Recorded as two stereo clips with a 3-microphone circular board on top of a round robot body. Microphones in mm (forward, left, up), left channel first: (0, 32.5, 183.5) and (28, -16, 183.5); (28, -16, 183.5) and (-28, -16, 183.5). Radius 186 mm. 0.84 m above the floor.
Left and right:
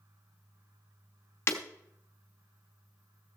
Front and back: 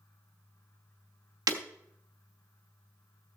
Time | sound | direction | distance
1.5 | breaking glass | 170° left | 0.9 m